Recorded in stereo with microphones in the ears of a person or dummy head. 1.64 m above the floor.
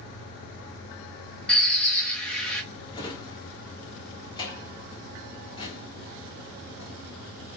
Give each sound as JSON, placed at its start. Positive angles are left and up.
{"t": 1.5, "sound": "a bird", "side_deg": 0, "distance_m": 1.5}
{"t": 2.9, "sound": "a drawer", "side_deg": 25, "distance_m": 1.5}